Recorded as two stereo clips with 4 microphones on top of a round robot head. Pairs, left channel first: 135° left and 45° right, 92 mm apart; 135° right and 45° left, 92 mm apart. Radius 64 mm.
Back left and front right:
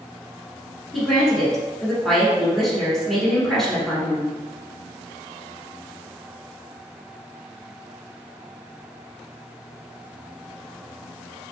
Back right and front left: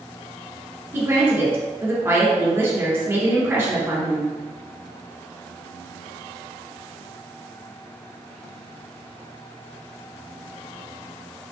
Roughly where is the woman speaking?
Ahead left.